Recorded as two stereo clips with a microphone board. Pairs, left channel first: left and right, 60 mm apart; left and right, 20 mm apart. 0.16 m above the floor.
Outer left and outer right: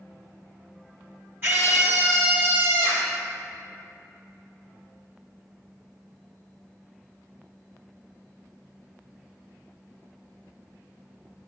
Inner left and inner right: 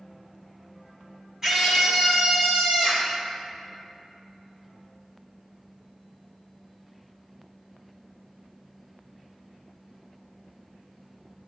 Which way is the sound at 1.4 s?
35° right (ahead or behind).